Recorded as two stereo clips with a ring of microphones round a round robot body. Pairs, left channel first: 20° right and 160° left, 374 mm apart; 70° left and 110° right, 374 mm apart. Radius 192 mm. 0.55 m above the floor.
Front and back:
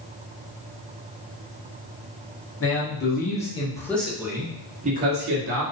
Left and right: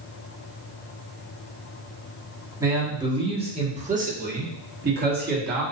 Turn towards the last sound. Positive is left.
turn(degrees=-165)